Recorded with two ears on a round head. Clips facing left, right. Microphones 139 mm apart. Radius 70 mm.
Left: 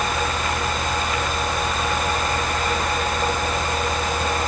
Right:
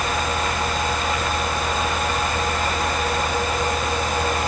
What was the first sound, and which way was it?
Only background noise.